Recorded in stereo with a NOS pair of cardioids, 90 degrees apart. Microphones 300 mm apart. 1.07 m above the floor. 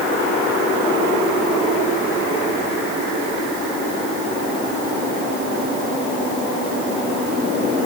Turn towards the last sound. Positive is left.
No sound to turn to.